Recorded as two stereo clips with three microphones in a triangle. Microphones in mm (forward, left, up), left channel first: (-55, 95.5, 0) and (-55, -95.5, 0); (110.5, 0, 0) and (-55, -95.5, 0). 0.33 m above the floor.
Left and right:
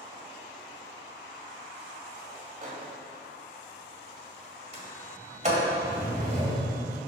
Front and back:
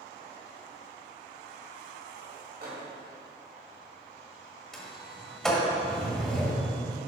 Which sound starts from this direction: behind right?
A microwave, at 2.6 s.